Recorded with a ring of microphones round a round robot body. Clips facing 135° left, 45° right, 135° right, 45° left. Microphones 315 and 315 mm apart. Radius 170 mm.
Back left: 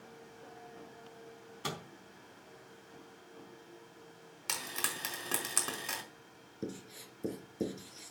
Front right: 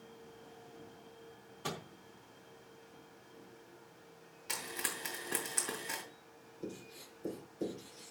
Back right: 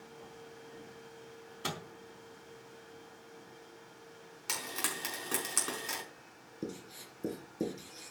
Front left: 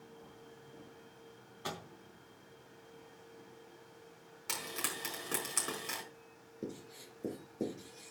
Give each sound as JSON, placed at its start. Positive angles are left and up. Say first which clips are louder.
{"t": 1.6, "sound": "a microwave", "louder": "even, back right 2 dB", "azimuth_deg": -175, "distance_m": 3.5}
{"t": 4.5, "sound": "frying", "louder": "even, back right 1 dB", "azimuth_deg": 140, "distance_m": 5.0}
{"t": 6.6, "sound": "writing", "louder": "back left 3 dB, back right 2 dB", "azimuth_deg": 160, "distance_m": 3.5}